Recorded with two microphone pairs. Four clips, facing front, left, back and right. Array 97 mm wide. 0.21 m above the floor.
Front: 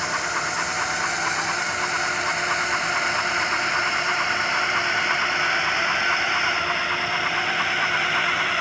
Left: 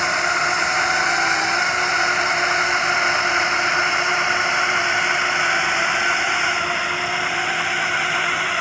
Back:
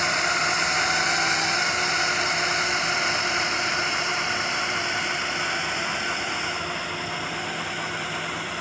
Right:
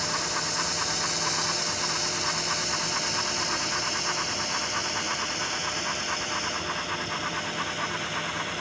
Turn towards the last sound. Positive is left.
turn(degrees=60)